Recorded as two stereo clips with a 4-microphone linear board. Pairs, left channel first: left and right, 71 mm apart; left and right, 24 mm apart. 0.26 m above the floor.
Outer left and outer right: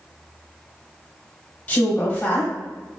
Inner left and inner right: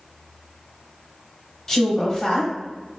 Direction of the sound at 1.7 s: 20° left (ahead or behind).